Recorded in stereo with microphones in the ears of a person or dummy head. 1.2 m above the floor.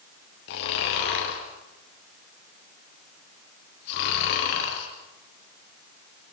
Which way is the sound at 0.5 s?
65° left (ahead or behind).